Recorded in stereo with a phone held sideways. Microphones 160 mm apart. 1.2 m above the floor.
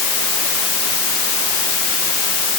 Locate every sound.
Only background noise.